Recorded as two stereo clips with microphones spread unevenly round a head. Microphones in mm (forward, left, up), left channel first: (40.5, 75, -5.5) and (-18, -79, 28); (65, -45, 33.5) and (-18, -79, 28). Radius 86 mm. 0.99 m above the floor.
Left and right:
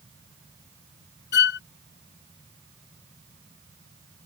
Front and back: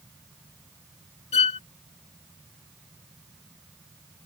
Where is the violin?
45° left.